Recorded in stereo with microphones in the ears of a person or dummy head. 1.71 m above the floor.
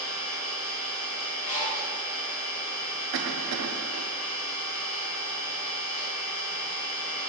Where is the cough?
60° right (ahead or behind), 0.5 m.